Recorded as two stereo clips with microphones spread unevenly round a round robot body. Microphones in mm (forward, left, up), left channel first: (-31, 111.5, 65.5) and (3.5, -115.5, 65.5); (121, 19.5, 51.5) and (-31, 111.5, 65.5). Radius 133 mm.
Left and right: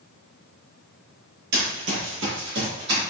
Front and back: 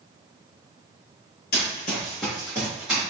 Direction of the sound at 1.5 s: 50° right.